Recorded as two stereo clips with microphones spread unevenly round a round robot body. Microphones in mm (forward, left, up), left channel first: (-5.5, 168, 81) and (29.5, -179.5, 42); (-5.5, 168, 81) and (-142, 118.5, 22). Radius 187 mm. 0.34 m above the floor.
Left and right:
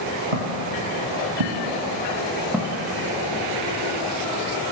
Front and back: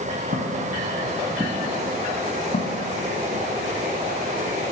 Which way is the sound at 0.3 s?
95° right.